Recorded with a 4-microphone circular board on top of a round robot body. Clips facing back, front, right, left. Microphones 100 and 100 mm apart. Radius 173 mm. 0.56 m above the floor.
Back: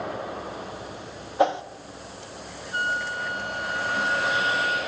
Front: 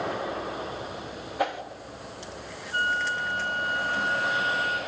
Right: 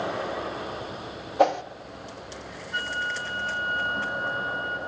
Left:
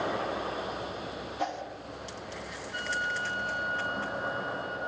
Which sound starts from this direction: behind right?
A whoosh, at 1.4 s.